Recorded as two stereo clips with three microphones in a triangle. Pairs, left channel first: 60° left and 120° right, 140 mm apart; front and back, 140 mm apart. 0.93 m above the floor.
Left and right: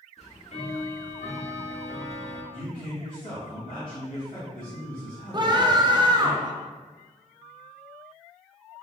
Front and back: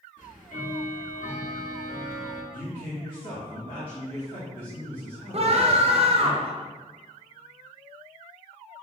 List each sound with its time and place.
0.2 s ticking: 25° left, 0.9 m
2.5 s a man speaking: 55° left, 2.0 m
5.3 s a scream: 165° right, 0.6 m